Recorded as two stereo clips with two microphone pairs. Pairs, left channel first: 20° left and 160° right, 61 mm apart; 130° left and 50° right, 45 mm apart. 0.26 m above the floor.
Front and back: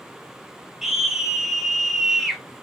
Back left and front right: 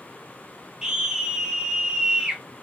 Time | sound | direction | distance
0.8 | a scream | 85° right | 1.0 m